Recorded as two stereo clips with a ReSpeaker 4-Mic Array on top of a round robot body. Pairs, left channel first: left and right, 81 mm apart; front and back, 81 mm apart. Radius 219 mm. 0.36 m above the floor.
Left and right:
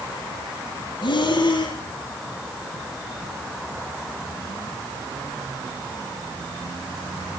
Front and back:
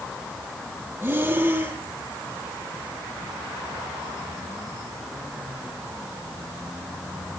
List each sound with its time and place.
1.0 s breathing: 115° left, 6.5 m